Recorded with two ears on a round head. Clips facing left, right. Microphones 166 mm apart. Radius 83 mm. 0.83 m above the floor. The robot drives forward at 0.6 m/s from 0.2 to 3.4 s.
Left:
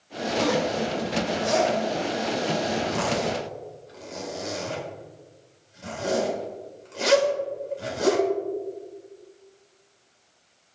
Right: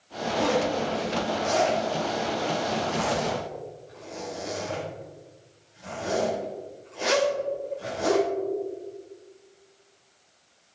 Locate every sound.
0.3 s a zipper: 55° left (ahead or behind), 5.5 m; by 8.2 s 75° left (ahead or behind), 4.5 m